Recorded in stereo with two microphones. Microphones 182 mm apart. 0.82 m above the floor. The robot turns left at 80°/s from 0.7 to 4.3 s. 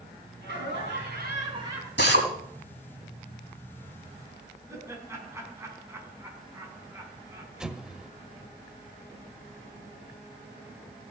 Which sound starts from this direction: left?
A drill, at 2.0 s.